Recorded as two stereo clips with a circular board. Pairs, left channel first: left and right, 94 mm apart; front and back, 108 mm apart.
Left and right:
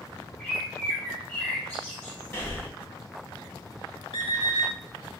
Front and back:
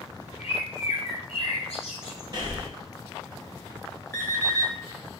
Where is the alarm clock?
65° left, 1.4 m.